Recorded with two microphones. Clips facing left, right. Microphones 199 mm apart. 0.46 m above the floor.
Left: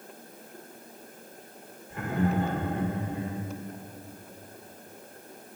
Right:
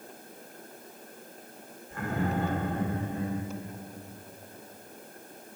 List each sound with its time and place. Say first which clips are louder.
1.9 s laughter: left 3 dB; 20° left (ahead or behind), 1.4 m